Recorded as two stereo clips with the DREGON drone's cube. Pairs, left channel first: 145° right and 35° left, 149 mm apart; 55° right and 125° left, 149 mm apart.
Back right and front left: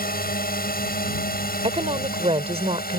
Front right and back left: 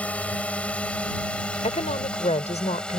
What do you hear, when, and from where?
0.0 s a drone: 135° right; by 3.0 s 140° right
1.6 s a woman speaking: 15° right